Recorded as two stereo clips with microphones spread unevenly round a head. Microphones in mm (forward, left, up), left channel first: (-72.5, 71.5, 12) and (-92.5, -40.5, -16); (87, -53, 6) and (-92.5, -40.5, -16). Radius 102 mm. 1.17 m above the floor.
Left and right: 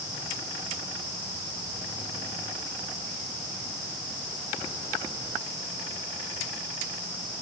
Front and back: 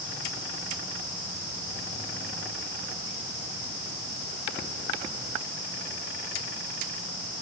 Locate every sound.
Only background noise.